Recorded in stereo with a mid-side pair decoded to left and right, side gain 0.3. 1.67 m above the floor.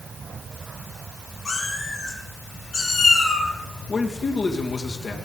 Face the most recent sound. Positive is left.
turn(degrees=65)